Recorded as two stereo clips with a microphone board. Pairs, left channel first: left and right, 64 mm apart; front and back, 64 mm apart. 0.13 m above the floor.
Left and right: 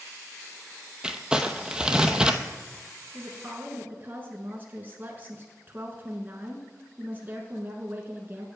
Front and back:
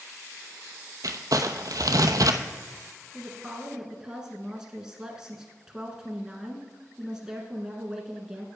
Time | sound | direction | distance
1.0 | crumpling | 165° right | 0.7 m
3.1 | a woman speaking | 110° right | 1.4 m